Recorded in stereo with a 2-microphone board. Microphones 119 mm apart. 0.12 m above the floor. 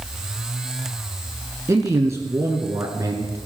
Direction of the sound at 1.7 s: 25° right (ahead or behind).